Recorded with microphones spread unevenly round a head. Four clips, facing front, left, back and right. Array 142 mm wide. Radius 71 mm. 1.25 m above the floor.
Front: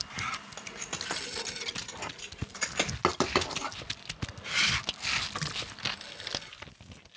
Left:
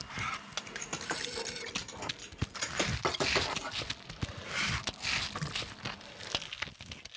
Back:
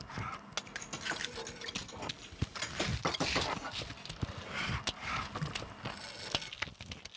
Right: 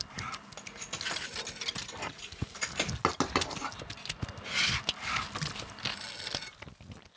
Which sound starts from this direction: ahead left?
Keys jangling, at 0.6 s.